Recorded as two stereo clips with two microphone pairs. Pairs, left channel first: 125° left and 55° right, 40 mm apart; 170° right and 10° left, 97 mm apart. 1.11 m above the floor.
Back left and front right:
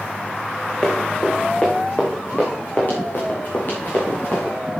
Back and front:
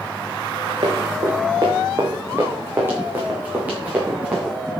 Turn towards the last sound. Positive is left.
turn(degrees=85)